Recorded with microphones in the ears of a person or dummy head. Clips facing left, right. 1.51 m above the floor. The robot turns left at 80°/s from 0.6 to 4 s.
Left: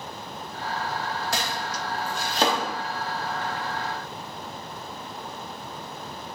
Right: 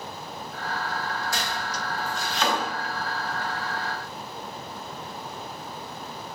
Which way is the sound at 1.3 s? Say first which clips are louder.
Left 1 dB; 60° left (ahead or behind).